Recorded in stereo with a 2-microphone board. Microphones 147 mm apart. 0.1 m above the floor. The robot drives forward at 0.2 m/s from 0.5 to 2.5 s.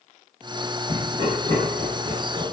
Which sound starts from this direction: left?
Laughter, at 0.9 s.